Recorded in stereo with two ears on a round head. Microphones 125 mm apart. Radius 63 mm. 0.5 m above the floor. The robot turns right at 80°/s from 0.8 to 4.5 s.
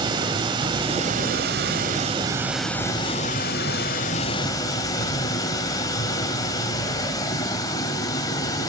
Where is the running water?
145° right, 1.3 m; by 8.7 s 150° left, 1.3 m.